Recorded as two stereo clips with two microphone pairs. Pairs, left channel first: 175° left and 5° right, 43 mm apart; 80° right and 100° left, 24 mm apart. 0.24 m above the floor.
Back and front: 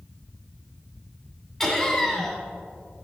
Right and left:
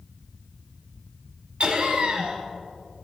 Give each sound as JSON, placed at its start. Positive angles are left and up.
{"t": 1.6, "sound": "laughter", "azimuth_deg": 100, "distance_m": 1.6}